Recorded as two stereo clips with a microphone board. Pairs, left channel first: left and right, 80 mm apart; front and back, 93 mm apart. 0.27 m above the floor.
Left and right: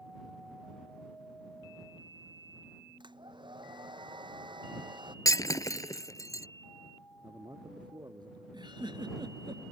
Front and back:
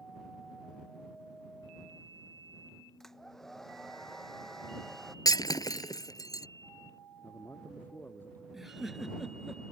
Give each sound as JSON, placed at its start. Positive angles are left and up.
{"t": 3.0, "sound": "a hair dryer", "azimuth_deg": -85}
{"t": 5.2, "sound": "breaking glass", "azimuth_deg": 45}
{"t": 7.2, "sound": "a man speaking", "azimuth_deg": -70}
{"t": 8.5, "sound": "a giggle", "azimuth_deg": -90}